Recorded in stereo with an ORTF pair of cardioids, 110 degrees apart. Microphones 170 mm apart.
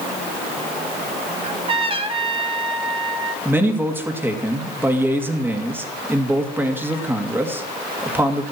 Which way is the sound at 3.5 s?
10° right.